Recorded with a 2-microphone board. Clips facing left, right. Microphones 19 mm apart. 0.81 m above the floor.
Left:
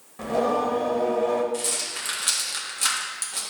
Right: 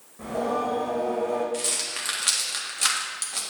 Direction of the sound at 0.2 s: 45° left (ahead or behind).